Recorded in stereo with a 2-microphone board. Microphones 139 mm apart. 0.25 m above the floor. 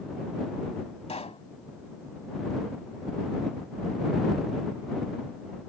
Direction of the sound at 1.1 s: 45° left (ahead or behind).